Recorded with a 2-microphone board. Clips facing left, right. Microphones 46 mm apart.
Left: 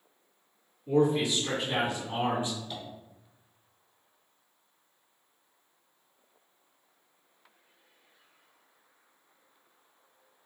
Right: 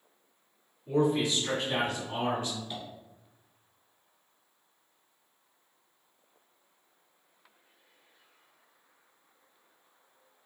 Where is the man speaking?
5° right (ahead or behind), 1.9 m; by 2.6 s 25° left (ahead or behind), 1.7 m.